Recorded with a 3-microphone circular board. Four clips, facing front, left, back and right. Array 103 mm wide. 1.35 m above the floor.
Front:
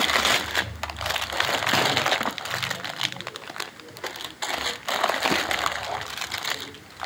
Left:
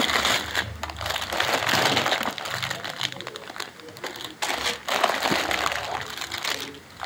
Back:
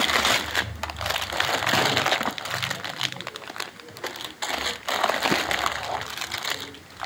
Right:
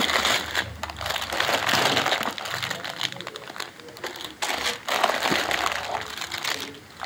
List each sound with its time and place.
Only background noise.